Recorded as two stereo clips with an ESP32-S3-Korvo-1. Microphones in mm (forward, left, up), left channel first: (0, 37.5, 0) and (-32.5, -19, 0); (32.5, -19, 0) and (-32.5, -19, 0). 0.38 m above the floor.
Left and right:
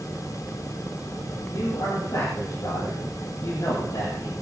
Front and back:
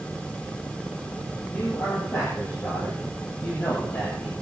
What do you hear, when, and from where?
1.5 s a man speaking: 55° left, 9 m